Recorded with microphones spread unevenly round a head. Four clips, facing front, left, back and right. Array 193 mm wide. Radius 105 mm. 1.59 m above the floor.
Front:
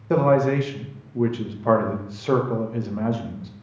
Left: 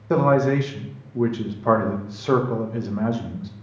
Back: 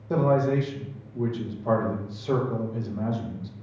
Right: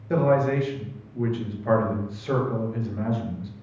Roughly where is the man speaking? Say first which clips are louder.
Left 3 dB, front 4 dB; ahead left.